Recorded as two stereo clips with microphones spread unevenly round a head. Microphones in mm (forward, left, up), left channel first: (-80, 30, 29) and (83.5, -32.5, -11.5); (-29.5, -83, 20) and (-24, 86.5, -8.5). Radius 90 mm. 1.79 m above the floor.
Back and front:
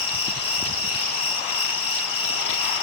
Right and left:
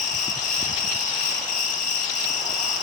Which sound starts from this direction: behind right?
An insect, at 0.0 s.